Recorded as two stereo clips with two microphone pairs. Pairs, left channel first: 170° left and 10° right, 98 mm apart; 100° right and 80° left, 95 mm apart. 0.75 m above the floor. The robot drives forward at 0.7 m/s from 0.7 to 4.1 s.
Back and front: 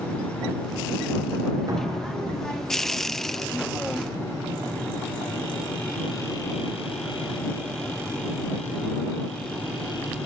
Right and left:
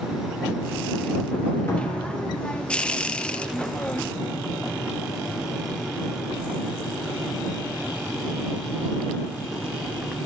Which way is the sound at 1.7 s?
50° right.